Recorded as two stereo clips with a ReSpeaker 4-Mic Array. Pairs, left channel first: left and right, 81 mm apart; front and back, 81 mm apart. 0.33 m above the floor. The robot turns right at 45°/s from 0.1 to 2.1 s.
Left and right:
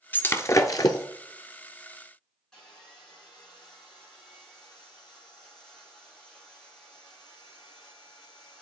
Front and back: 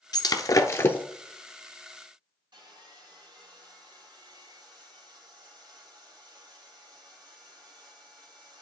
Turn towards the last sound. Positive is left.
turn(degrees=170)